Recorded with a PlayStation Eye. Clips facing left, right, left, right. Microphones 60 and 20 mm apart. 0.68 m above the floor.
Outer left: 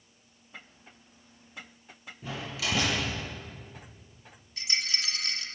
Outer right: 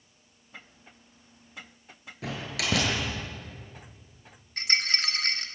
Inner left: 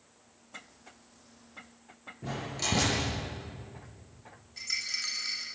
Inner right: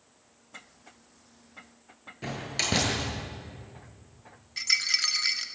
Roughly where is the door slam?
Right.